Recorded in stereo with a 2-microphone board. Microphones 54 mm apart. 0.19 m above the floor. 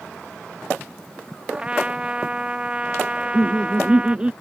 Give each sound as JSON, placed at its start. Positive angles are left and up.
{"t": 1.5, "sound": "a trumpet", "side_deg": -20}
{"t": 3.2, "sound": "laughter", "side_deg": -20}